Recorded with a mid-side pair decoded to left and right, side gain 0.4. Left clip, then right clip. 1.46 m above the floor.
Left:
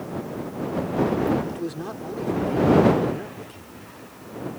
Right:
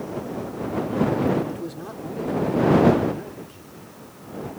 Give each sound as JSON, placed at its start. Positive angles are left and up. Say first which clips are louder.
{"t": 1.5, "sound": "a man speaking", "louder": "left 2 dB", "azimuth_deg": 30}